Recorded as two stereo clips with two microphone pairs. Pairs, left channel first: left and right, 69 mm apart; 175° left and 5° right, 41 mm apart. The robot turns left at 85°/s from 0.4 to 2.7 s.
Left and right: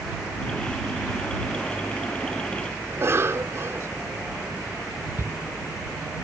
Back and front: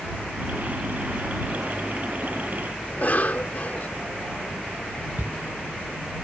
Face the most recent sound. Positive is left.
turn(degrees=-35)